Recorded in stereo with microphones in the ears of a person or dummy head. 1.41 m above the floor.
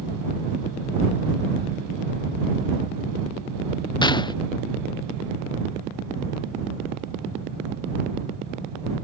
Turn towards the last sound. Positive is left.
turn(degrees=20)  # may be behind; listen again after turning